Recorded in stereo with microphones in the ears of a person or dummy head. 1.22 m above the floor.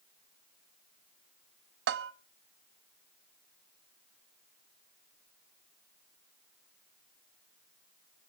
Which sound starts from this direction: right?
A bell, at 1.9 s.